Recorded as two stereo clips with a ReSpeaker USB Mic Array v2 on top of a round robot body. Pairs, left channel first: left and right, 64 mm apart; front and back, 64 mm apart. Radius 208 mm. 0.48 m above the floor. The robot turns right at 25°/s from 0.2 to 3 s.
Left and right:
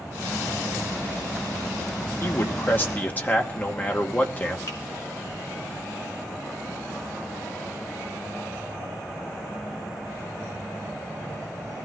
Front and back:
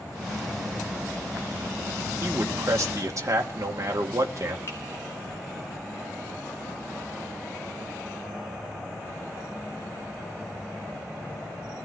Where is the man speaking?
130° left, 2.5 m; by 4.6 s 150° left, 2.5 m.